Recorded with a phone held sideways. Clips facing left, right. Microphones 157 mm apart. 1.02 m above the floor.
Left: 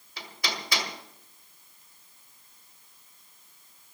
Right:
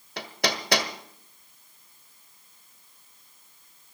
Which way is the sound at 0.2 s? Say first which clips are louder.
Right 7 dB; 70° right (ahead or behind).